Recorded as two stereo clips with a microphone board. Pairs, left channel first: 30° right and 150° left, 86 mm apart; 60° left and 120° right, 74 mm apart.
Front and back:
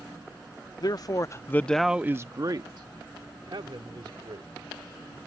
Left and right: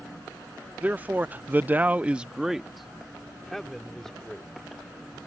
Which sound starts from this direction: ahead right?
A man speaking, at 0.8 s.